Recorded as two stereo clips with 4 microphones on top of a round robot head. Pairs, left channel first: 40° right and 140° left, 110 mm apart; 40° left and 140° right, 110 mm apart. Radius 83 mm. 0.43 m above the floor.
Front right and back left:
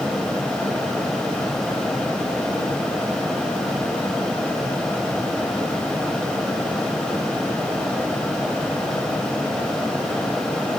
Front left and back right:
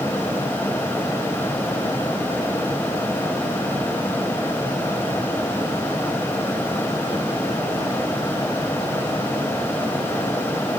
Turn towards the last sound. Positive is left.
No sound to turn to.